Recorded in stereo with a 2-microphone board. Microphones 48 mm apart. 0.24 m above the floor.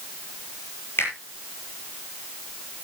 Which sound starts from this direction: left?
A finger snap, at 1.0 s.